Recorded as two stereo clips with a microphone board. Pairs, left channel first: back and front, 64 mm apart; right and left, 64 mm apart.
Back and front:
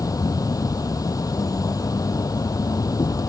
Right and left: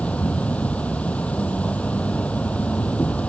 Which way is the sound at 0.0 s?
160° right.